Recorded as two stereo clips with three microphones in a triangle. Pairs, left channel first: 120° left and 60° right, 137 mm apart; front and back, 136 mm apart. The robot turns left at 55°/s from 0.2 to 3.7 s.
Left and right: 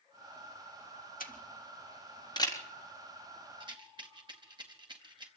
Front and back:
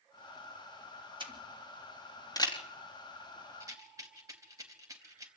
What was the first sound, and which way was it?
A camera shutter, 125° left.